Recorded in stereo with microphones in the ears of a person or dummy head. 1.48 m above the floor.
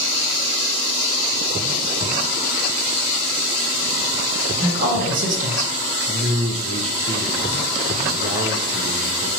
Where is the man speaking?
35° right (ahead or behind), 0.7 m.